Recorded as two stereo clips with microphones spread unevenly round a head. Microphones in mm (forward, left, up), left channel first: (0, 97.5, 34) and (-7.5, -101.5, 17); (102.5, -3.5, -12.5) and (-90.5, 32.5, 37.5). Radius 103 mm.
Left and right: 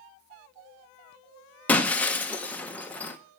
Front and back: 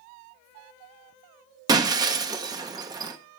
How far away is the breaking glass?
About 0.9 m.